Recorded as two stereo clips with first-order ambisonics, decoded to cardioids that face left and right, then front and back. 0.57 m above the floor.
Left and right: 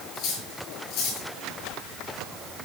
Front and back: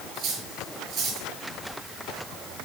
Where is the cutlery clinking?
130° left, 6.5 m.